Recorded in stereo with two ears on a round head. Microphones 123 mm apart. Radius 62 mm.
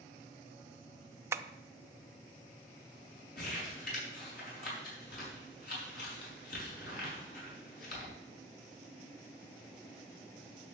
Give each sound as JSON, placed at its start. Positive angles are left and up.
{"t": 1.3, "sound": "tapping", "side_deg": -20, "distance_m": 0.5}
{"t": 3.4, "sound": "crumpling", "side_deg": 70, "distance_m": 5.5}